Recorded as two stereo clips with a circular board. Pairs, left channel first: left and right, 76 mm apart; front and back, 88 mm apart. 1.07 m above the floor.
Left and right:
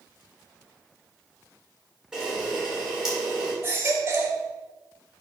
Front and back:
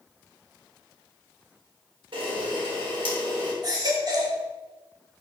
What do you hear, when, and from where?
2.1 s a camera shutter: 170° right, 3.5 m
3.6 s a baby crying: 145° right, 1.7 m